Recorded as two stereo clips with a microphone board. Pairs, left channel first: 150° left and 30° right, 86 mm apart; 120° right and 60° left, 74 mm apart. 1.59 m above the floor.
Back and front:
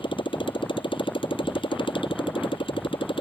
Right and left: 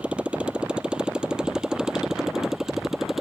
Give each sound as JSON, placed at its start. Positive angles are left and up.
{"t": 0.0, "sound": "a motorcycle", "azimuth_deg": 135}